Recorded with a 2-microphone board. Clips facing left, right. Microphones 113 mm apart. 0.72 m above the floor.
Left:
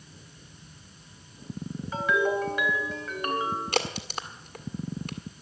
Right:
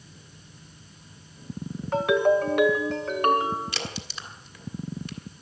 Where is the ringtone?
70° right (ahead or behind), 2.0 m.